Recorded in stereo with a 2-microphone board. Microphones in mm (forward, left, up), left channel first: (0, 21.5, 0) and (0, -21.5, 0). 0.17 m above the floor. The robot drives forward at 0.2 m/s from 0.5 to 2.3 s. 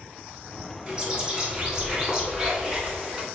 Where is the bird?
25° right (ahead or behind), 0.9 m; by 3.2 s 20° right (ahead or behind), 1.1 m.